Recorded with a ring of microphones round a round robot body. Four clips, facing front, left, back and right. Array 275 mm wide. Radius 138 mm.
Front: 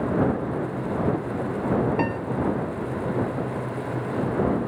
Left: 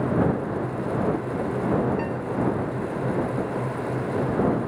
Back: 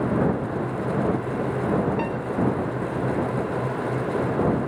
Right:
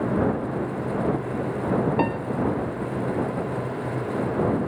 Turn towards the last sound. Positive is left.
turn(degrees=-70)